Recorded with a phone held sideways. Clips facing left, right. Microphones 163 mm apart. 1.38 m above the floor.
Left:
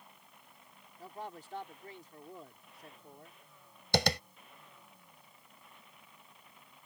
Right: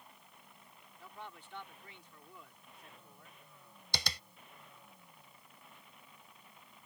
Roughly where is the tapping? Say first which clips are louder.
Left 14 dB; left.